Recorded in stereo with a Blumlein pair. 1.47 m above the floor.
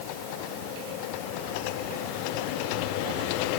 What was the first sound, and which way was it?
Only background noise.